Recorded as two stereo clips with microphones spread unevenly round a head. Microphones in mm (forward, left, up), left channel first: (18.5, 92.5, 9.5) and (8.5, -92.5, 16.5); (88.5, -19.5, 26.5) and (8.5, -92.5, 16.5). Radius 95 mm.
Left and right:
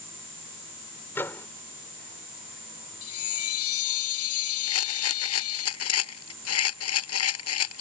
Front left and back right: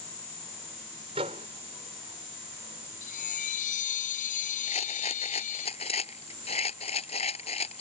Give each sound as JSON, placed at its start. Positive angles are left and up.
{"t": 1.1, "sound": "a microwave", "azimuth_deg": 165}
{"t": 3.0, "sound": "a chime", "azimuth_deg": 80}
{"t": 4.7, "sound": "a rattle", "azimuth_deg": 100}